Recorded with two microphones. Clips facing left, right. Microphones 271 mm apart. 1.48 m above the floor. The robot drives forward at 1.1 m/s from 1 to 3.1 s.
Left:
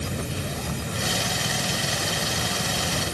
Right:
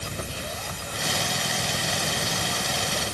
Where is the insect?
65° left (ahead or behind); by 3.1 s 80° left.